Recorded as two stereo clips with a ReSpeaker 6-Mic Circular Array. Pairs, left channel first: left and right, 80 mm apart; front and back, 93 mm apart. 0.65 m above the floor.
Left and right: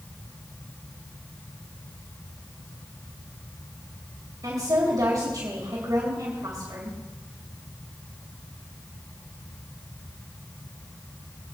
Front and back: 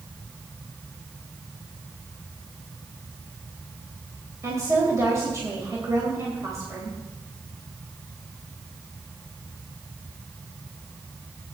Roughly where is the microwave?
I don't hear a microwave.